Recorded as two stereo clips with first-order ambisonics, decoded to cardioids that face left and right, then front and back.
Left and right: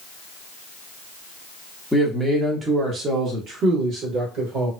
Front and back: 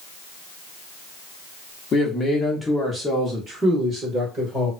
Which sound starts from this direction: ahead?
A man speaking, at 1.9 s.